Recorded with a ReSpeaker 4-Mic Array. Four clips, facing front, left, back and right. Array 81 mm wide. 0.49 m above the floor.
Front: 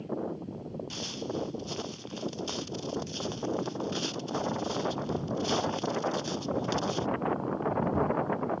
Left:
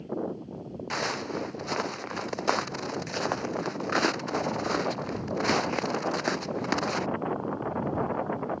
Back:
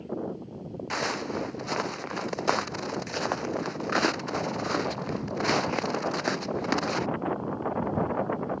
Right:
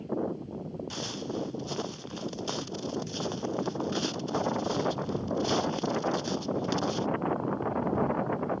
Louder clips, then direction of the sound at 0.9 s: Left 7 dB, back 8 dB; 140° left.